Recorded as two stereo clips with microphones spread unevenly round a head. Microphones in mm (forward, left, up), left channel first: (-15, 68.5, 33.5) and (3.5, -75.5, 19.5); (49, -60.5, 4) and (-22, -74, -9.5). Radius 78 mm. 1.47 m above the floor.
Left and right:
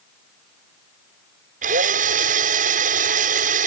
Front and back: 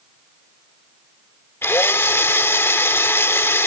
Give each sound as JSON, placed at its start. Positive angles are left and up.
{"t": 1.6, "sound": "a drill", "azimuth_deg": -45}